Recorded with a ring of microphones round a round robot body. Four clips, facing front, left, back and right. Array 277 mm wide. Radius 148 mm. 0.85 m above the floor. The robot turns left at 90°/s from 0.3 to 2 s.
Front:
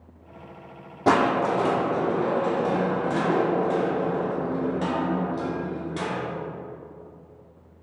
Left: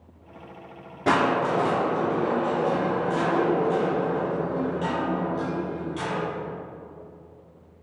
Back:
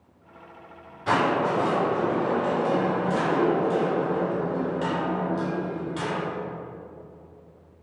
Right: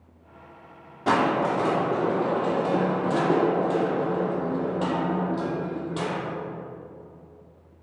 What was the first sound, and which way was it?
Crushing, 20° left.